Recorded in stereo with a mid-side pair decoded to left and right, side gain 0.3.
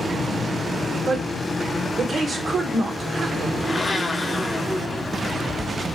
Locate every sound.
1.1 s a woman speaking: 60° right, 1.2 m
3.6 s a blender: 40° left, 0.7 m